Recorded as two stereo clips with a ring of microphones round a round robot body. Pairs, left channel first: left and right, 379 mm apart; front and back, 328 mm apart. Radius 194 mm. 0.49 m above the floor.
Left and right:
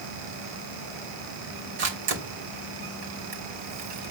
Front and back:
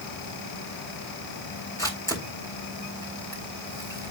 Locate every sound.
1.8 s a camera shutter: 80° right, 3 m